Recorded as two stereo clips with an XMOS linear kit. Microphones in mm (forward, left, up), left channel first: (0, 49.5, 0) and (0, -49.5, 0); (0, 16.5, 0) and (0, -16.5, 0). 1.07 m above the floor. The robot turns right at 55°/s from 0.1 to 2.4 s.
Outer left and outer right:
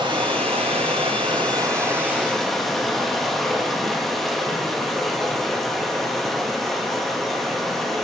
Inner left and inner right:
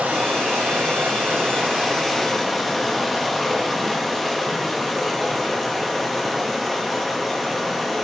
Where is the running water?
125° right, 1.1 m; by 8.0 s straight ahead, 1.1 m.